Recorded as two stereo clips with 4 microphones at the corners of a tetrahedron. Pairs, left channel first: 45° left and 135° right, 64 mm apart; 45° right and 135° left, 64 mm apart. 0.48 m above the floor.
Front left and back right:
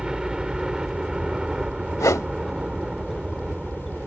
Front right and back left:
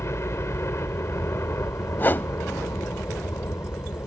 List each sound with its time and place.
0.0 s a helicopter: 60° right
2.0 s a whoosh: 10° left